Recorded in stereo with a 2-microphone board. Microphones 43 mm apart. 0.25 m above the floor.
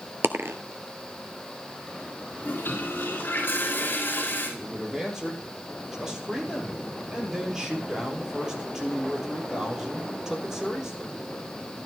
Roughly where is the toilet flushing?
Left.